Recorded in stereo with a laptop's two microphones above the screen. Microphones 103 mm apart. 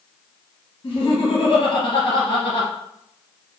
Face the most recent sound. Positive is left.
turn(degrees=55)  # may be behind; listen again after turning